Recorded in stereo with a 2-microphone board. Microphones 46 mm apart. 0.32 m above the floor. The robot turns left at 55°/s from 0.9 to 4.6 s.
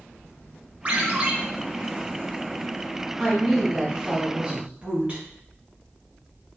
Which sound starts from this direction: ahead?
A woman speaking, at 3.2 s.